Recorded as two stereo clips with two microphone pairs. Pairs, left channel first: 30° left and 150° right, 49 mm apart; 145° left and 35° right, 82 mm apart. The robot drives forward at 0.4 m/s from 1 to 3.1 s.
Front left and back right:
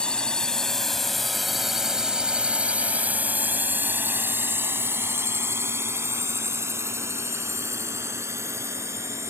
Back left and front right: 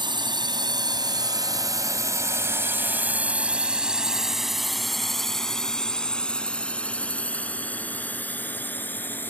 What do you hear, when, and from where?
0.0 s a drone: 40° right; by 9.3 s 145° right